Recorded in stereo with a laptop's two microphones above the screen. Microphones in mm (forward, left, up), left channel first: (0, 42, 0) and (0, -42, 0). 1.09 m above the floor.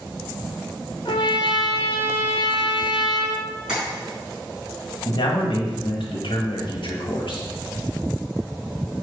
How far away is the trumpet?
About 1.3 m.